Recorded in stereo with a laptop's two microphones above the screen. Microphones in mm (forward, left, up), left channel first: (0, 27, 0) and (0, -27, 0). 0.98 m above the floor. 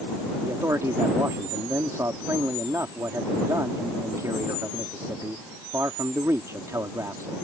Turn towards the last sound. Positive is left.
turn(degrees=-80)